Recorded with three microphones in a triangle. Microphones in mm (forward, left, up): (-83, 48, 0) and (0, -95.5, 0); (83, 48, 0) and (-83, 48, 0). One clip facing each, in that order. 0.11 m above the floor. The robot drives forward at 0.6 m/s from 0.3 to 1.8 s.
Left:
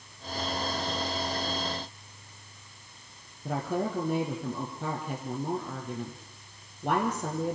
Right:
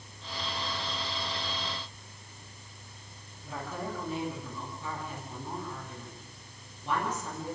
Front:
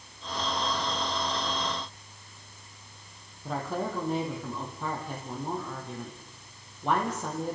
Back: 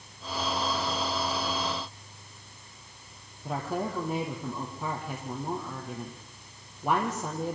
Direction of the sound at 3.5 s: 95° left.